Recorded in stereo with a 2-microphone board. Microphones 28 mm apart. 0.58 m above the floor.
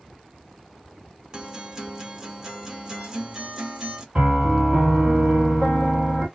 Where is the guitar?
20° right (ahead or behind), 0.8 m.